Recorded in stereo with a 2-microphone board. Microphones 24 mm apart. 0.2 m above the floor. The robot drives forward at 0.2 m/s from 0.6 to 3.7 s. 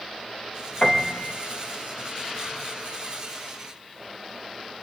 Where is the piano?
25° left (ahead or behind), 4.5 m.